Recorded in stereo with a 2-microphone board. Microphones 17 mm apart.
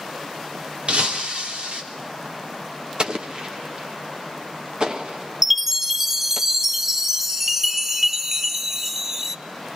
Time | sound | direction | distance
0.9 | breaking glass | 70° right (ahead or behind) | 3 m
3.0 | an explosion | 40° right (ahead or behind) | 1.8 m
5.4 | a chime | 15° right (ahead or behind) | 0.7 m